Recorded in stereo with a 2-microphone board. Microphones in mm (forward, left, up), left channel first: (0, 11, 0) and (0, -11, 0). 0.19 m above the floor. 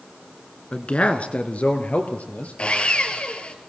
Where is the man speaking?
50° left (ahead or behind), 1.7 m; by 2.5 s 70° left (ahead or behind), 3.5 m.